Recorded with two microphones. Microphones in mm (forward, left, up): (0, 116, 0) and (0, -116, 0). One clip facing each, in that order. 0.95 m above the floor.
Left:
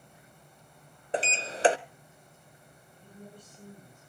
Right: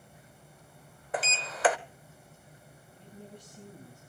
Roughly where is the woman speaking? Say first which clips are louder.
Right 1 dB; right.